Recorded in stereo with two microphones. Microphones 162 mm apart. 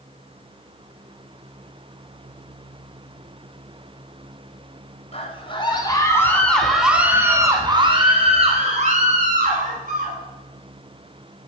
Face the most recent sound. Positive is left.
turn(degrees=-60)  # may be behind; listen again after turning